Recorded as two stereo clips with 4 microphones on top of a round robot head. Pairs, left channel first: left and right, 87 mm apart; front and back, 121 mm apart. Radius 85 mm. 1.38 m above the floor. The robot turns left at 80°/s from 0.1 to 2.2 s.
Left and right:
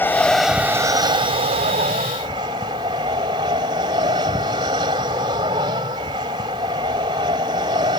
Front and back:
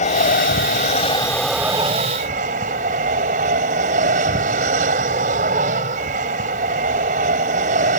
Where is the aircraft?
25° left; by 8.0 s 145° right.